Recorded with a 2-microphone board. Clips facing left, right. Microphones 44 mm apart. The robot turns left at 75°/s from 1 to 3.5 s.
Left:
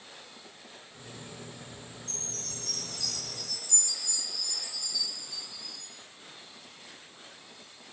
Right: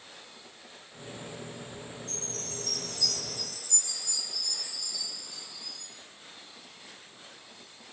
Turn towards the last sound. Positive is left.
turn(degrees=40)